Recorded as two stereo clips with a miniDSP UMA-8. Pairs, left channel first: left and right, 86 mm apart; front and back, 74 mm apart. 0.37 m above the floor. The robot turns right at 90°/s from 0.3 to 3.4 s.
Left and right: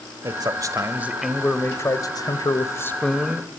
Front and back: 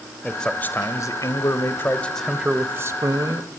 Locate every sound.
0.2 s a man speaking: 90° right, 1.4 m; by 3.5 s 170° right, 1.4 m